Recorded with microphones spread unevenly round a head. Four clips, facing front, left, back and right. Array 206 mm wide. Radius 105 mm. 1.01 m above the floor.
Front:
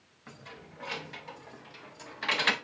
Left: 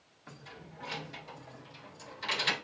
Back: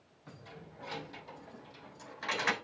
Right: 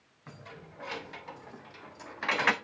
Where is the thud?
No thud in this recording.